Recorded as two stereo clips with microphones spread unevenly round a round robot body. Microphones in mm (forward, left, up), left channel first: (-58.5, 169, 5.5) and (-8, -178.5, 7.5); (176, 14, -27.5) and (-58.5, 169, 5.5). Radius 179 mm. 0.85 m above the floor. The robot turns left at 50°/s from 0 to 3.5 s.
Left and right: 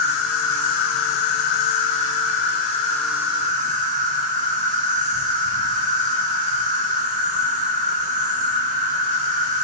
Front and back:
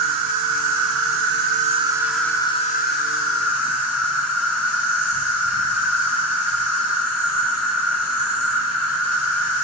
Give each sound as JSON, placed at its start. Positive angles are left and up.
{"t": 0.0, "sound": "an insect", "azimuth_deg": 160, "distance_m": 1.8}